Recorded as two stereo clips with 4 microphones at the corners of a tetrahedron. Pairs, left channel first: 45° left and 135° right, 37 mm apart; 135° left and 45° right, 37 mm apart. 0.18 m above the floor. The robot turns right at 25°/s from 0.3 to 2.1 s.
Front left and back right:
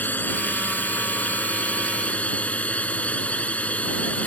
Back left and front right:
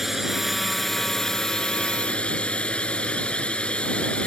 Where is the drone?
40° left; by 4.3 s 85° left.